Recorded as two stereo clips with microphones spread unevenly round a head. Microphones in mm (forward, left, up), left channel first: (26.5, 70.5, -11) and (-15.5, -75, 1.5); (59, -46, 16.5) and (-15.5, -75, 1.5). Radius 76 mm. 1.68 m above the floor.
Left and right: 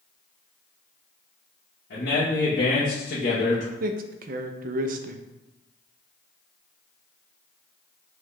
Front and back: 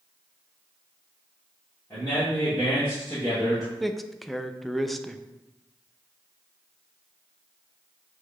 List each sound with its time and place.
1.9 s a man speaking: 85° left, 1.5 m; by 3.7 s 100° left, 0.7 m
3.8 s a man speaking: 70° right, 0.5 m